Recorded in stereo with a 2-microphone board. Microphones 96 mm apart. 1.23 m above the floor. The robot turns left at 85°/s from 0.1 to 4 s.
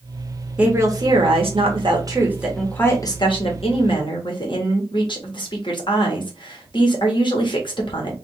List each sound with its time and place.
0.6 s a woman speaking: 10° right, 1.7 m; by 8.2 s 55° left, 1.7 m